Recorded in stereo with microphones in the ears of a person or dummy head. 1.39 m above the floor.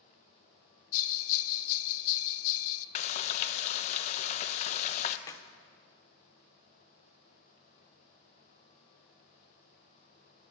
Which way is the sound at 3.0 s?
40° left (ahead or behind).